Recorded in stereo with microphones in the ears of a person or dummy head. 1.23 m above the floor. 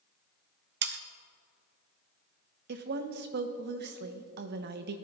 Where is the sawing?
50° right (ahead or behind), 0.5 m.